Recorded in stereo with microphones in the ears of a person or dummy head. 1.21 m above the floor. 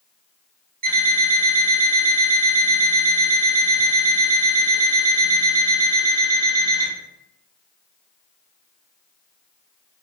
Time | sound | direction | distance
0.8 | an alarm clock | 50° right (ahead or behind) | 1.2 m